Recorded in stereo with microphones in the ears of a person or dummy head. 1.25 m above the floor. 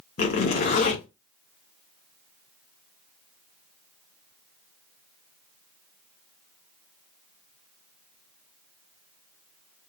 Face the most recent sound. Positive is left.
turn(degrees=45)  # may be behind; listen again after turning